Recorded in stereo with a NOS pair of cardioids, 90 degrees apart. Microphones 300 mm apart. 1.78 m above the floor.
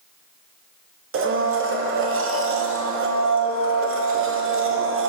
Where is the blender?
45° right, 0.9 m.